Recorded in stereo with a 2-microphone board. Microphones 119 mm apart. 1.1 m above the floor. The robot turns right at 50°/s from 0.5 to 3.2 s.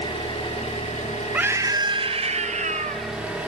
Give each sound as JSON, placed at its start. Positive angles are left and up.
{"t": 0.0, "sound": "an engine running", "azimuth_deg": 55, "distance_m": 2.0}
{"t": 1.3, "sound": "a scream", "azimuth_deg": -165, "distance_m": 0.6}